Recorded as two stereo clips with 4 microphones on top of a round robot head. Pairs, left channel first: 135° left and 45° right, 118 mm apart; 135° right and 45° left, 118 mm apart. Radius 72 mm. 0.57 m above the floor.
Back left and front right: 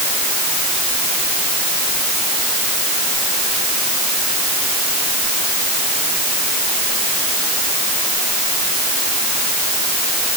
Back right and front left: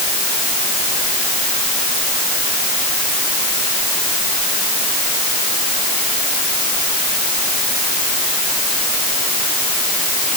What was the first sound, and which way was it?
Only background noise.